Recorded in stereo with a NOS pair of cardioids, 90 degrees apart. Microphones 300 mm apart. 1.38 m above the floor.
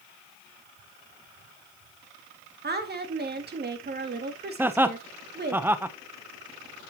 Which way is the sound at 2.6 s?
35° right.